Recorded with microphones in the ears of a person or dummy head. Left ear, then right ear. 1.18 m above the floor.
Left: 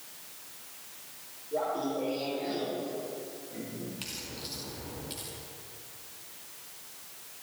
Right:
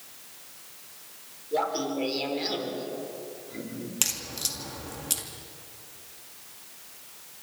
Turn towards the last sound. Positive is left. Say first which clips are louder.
# right 14 dB
turn(degrees=-50)  # may be behind; listen again after turning